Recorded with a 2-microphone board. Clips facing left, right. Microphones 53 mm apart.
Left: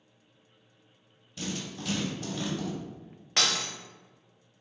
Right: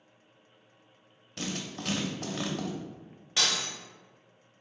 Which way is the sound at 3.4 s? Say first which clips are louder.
Left 1 dB; 60° left (ahead or behind).